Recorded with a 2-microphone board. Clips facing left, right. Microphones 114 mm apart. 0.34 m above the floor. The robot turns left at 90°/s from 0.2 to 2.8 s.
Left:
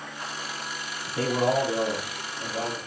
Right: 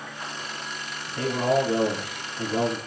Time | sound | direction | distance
1.1 | a man speaking | 40° left | 4 m